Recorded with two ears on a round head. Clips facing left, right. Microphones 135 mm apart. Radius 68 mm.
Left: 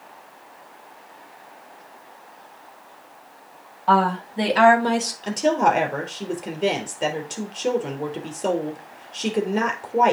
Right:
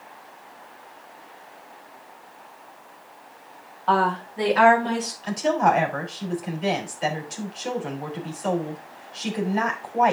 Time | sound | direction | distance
3.9 | a woman speaking | 5° left (ahead or behind) | 2 m
5.2 | a woman speaking | 60° left (ahead or behind) | 3 m